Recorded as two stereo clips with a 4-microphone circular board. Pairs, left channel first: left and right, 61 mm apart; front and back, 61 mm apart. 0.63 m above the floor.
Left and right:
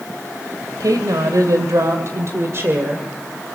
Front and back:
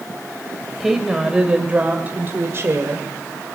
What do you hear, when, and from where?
0.8 s a woman speaking: 95° right, 2.5 m; by 3.1 s 145° right, 2 m